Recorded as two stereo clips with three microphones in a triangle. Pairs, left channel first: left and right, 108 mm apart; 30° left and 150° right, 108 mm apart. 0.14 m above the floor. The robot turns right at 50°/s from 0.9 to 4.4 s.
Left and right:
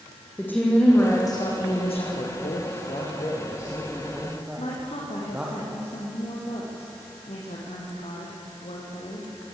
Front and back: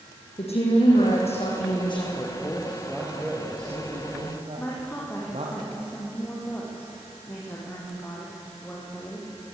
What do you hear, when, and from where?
0.4 s a woman speaking: 20° left, 6 m; by 2.1 s 75° left, 6 m
2.2 s a man speaking: 80° left, 5 m; by 5.6 s 165° right, 5 m
4.6 s a woman speaking: 100° left, 6.5 m